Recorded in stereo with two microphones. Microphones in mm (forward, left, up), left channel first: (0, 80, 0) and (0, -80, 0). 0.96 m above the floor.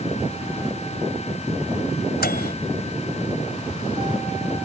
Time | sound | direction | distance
2.2 | a microwave | 85° left | ?